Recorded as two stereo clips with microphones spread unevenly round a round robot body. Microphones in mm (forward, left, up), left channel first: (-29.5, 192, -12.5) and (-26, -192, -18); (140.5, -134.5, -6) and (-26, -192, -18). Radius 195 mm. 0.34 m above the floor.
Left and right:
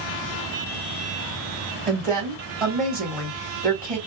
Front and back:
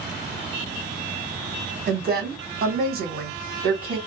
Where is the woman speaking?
175° right, 2.0 m.